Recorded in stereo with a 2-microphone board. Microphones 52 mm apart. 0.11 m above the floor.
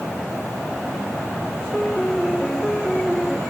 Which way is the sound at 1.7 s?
5° left (ahead or behind).